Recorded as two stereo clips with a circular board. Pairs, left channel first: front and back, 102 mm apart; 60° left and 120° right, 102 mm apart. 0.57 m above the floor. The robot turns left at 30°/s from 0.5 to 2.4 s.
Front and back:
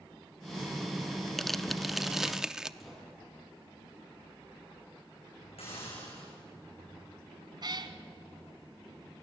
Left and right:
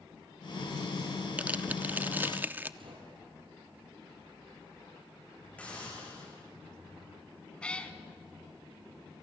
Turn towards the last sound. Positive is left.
turn(degrees=140)